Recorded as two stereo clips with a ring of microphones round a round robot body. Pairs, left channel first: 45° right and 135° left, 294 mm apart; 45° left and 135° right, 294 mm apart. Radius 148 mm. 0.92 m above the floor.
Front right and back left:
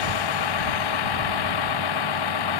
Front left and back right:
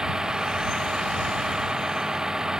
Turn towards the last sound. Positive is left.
turn(degrees=-45)